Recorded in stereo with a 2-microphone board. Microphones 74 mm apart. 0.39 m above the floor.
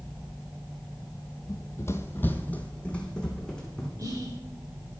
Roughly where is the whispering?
Right.